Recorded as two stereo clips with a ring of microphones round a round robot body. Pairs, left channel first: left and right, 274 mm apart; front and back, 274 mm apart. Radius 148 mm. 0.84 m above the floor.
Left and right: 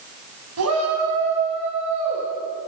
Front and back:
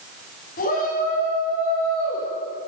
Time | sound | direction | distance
0.6 | a shout | 65° right | 5.5 m